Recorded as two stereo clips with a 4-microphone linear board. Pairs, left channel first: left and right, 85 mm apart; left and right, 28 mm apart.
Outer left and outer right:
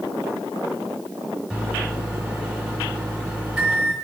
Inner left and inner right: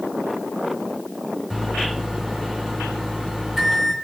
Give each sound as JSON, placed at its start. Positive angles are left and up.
{"t": 1.5, "sound": "a microwave", "side_deg": -15, "distance_m": 1.3}